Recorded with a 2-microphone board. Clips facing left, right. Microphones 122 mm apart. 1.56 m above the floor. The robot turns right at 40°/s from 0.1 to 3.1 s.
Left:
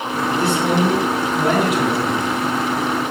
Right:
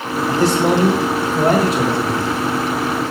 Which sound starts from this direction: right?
A man speaking, at 0.3 s.